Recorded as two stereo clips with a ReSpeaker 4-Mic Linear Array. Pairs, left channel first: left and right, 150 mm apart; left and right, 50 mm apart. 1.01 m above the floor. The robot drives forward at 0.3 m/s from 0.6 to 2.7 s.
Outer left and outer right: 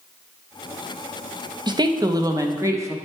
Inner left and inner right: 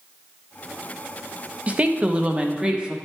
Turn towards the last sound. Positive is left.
turn(degrees=-20)  # may be behind; listen again after turning